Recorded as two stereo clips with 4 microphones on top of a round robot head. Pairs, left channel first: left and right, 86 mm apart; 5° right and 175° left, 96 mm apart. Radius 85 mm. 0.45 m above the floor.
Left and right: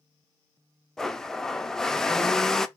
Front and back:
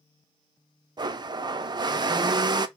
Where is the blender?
170° left, 0.6 m.